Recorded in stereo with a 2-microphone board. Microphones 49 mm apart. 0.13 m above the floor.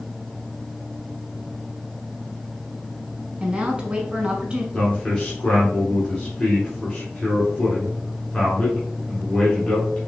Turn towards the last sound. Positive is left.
turn(degrees=20)  # may be behind; listen again after turning